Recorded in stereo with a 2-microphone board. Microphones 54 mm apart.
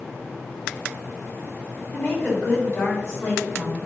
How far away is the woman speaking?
About 3 m.